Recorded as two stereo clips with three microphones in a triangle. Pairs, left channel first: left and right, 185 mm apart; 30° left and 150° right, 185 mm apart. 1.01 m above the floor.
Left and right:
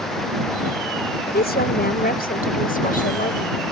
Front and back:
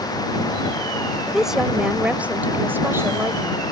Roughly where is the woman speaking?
Behind left.